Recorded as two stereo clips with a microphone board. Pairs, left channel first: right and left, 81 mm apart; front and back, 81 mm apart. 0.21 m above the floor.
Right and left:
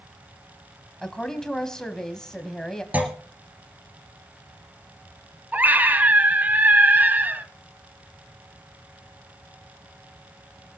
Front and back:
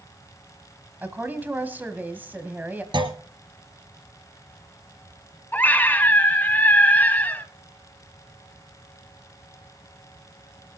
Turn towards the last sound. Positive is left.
turn(degrees=45)